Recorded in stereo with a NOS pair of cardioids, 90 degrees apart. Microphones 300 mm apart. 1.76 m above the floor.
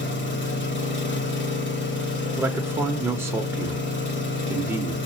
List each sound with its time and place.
0.0 s an engine running: 40° left, 1.3 m
2.4 s a man speaking: 10° right, 1.0 m